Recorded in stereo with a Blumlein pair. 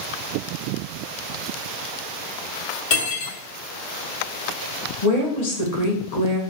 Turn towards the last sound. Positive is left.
turn(degrees=55)